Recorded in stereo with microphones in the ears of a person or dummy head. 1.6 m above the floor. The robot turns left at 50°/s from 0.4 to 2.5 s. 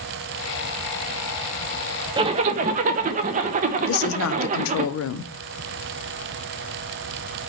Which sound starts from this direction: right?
A zipper, at 2.2 s.